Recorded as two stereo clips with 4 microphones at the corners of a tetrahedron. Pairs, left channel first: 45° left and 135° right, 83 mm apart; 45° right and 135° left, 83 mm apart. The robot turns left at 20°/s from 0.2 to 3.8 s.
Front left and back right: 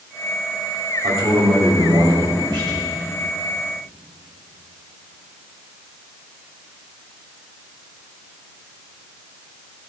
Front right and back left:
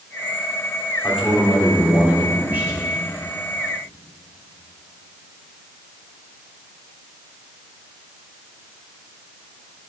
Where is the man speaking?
130° right, 3 m; by 2.9 s 165° right, 3 m.